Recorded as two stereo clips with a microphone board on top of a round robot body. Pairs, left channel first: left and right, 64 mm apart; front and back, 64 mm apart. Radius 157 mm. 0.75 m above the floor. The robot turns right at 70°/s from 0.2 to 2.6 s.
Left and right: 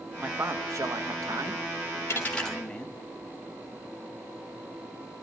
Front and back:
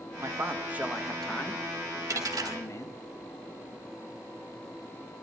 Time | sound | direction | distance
0.2 | a man speaking | 155° right | 1.7 m
2.1 | a dropped coin | 145° left | 1.4 m